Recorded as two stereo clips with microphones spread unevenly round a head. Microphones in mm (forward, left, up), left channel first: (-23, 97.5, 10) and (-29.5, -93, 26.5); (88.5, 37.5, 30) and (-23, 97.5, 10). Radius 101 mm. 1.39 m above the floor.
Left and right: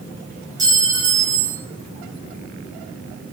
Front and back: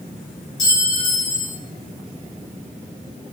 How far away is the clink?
About 0.8 m.